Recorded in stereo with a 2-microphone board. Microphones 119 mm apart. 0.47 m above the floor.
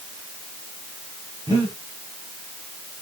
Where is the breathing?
35° right (ahead or behind), 4 m.